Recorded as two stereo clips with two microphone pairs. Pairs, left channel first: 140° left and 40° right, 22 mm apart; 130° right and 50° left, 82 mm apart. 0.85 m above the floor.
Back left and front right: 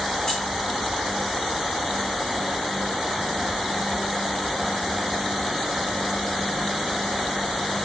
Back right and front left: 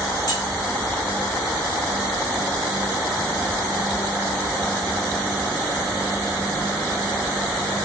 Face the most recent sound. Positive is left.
turn(degrees=-160)